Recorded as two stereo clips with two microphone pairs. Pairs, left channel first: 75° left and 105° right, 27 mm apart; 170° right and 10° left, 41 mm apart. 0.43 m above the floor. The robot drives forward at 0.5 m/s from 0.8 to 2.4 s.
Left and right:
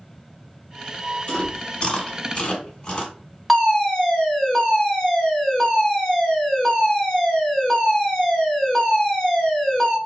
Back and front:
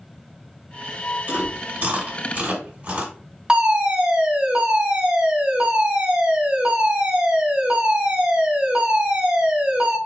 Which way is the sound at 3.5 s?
20° right.